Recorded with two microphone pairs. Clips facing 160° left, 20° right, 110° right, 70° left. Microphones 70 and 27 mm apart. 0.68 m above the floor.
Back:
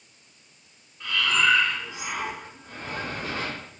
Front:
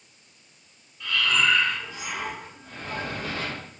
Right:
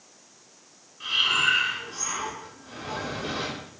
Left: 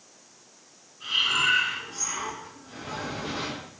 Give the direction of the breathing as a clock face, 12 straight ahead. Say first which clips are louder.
Back 1 dB, right 1 dB; 4 o'clock.